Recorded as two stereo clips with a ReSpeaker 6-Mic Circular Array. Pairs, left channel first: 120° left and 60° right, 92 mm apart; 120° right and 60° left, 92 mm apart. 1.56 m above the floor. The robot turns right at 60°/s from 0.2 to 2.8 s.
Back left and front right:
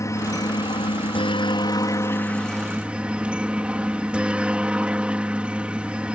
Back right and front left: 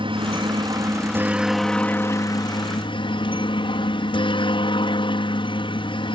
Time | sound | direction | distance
0.0 | a helicopter | 65° left | ?